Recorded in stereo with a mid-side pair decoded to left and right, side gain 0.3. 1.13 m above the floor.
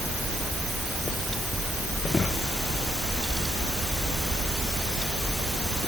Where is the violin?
No violin in this recording.